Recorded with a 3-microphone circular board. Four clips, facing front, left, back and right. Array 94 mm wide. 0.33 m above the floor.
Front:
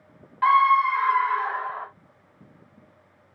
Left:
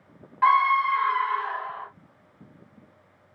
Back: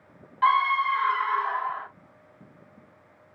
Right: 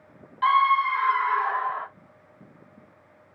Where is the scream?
65° left, 1.2 m; by 1.9 s 65° right, 1.5 m.